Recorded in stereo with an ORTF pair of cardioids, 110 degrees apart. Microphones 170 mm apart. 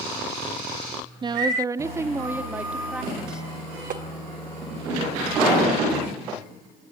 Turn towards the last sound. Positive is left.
turn(degrees=-55)